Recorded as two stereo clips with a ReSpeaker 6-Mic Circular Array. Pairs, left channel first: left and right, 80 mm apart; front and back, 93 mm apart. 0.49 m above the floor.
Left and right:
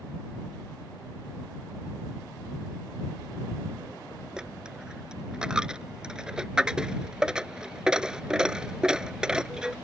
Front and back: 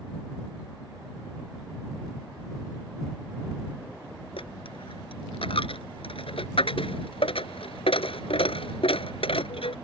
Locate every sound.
4.4 s a dropped coin: 10° right